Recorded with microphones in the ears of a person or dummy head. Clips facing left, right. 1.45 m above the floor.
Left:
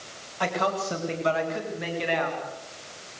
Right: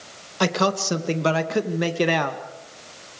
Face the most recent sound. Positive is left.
turn(degrees=-80)